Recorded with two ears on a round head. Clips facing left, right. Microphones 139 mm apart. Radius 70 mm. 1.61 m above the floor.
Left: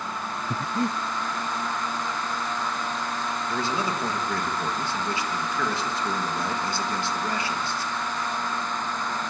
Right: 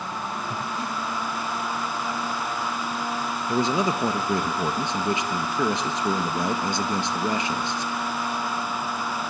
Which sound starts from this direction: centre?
A man speaking, at 3.5 s.